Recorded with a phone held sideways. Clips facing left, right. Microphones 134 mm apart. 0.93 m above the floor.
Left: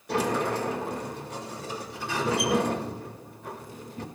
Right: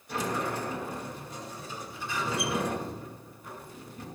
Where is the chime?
I don't hear a chime.